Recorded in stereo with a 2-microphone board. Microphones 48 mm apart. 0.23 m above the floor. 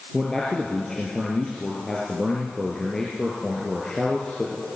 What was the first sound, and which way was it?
A man speaking, 15° left (ahead or behind).